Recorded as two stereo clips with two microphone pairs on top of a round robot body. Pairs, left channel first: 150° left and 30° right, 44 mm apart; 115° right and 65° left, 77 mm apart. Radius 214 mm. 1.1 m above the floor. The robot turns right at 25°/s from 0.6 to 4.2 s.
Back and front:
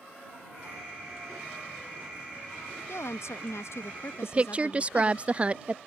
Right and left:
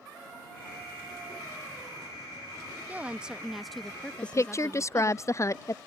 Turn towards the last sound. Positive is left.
turn(degrees=-85)